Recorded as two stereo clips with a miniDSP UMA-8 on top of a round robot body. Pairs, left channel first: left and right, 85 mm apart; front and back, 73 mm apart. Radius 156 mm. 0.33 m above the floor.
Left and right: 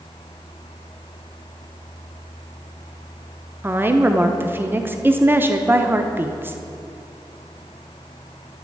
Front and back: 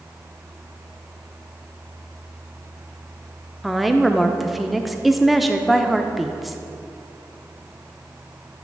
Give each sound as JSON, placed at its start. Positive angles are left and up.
{"t": 3.6, "sound": "a woman speaking", "azimuth_deg": -95, "distance_m": 0.9}